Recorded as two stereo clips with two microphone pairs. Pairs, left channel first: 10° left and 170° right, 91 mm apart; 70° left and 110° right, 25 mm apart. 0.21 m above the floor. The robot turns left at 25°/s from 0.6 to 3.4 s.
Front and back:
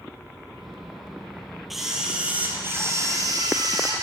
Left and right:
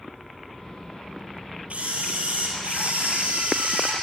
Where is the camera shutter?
85° right, 4.5 m; by 3.9 s 125° right, 4.5 m.